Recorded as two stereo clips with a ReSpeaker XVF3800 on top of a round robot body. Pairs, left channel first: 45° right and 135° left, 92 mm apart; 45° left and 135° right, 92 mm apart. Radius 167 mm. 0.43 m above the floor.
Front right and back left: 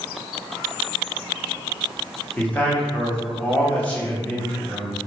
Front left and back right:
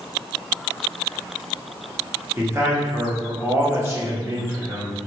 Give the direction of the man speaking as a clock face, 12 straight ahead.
3 o'clock.